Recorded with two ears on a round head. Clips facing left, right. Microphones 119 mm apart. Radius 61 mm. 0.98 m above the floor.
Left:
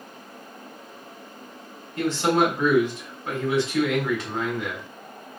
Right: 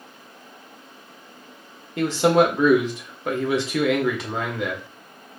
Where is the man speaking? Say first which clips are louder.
Right 4 dB; 65° right (ahead or behind), 1.5 m.